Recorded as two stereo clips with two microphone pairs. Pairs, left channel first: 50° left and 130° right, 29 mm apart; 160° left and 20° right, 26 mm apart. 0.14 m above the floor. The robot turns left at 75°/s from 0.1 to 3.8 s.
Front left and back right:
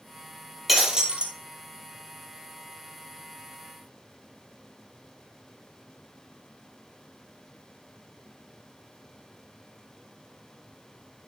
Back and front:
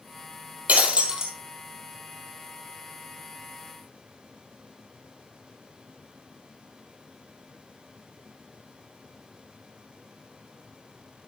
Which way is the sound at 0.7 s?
45° right.